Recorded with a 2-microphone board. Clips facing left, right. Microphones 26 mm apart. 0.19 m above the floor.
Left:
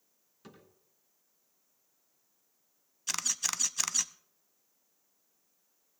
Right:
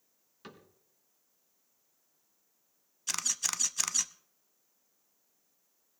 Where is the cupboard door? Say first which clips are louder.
Right 3 dB; 35° right (ahead or behind), 2.5 m.